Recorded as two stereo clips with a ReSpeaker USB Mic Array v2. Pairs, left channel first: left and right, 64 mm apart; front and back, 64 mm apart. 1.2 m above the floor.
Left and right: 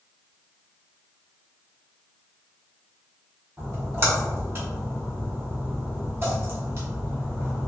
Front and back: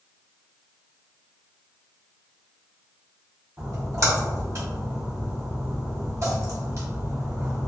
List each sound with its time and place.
3.6 s a splash: 140° right, 1.1 m